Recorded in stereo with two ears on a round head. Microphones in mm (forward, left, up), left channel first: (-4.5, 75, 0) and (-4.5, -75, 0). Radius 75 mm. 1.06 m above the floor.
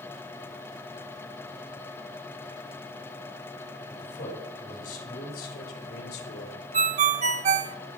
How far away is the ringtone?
About 0.9 m.